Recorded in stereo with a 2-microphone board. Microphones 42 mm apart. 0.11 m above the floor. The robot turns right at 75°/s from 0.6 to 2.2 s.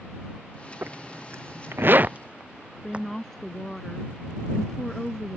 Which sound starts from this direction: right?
A zipper, at 0.8 s.